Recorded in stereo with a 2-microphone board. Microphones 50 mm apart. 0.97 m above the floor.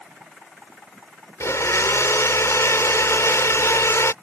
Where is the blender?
80° left.